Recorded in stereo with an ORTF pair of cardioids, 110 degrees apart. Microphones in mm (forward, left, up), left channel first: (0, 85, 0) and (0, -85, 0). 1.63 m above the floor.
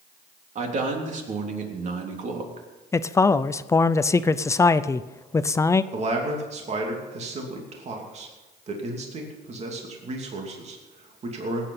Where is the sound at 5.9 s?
40° right, 3 m.